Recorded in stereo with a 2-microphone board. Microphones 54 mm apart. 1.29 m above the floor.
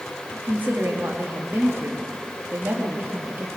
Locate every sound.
0.3 s a woman speaking: 35° right (ahead or behind), 2.5 m